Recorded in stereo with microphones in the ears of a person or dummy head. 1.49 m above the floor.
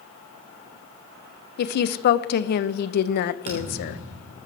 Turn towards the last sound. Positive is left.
turn(degrees=-30)  # may be behind; listen again after turning